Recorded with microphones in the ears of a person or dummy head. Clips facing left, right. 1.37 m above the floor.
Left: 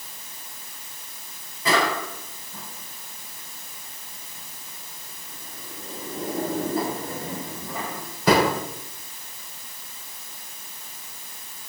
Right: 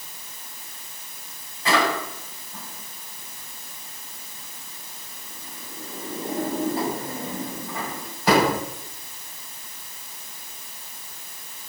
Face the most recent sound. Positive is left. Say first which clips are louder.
# right 1 dB
turn(degrees=85)